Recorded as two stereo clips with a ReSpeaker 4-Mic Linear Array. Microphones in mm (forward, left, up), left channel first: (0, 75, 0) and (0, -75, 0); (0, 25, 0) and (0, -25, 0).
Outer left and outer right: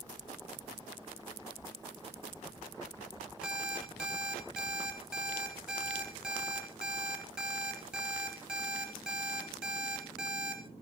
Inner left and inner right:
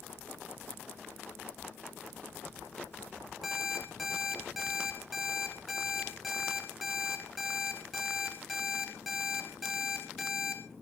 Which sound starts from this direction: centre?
An alarm clock, at 3.4 s.